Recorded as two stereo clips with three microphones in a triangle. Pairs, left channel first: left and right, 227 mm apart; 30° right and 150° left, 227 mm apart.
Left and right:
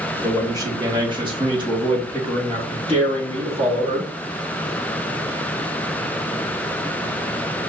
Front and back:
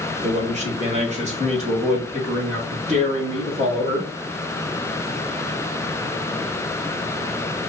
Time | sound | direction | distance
0.2 | a man speaking | 160° right | 1.3 m